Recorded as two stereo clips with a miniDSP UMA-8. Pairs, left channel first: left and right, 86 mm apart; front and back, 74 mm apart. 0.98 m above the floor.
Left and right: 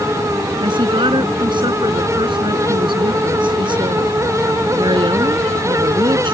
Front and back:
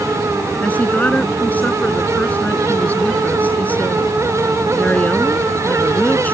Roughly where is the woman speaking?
Right.